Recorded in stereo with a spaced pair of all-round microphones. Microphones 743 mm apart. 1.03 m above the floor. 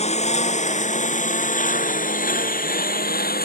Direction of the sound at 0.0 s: 10° left (ahead or behind).